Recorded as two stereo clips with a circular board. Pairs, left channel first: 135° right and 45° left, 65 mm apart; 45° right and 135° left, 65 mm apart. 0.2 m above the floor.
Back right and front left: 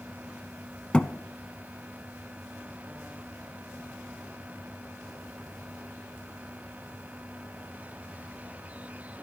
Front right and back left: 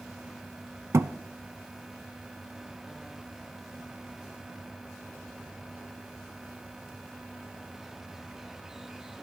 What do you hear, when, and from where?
0.9 s a thud: 155° left, 0.5 m